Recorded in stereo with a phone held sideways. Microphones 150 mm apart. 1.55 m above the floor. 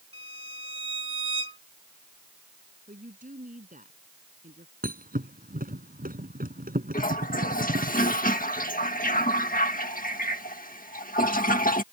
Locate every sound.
0.1 s a violin: 40° right (ahead or behind)
2.9 s a woman speaking: 60° right (ahead or behind)
4.8 s a thud: 75° right (ahead or behind)
6.9 s a toilet flushing: 70° left (ahead or behind)